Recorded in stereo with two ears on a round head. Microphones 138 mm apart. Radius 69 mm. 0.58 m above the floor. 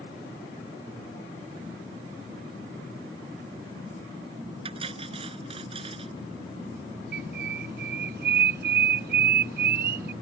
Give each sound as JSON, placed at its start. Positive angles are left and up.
{"t": 4.7, "sound": "cutlery clinking", "side_deg": -35}
{"t": 7.1, "sound": "a bird", "side_deg": -65}